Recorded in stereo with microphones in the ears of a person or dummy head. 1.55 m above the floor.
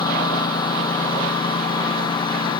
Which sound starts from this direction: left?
A lawn mower, at 0.0 s.